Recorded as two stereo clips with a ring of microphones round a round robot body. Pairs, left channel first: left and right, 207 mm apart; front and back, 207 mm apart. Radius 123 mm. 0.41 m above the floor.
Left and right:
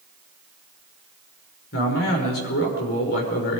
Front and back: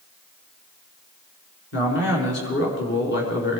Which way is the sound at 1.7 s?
40° left.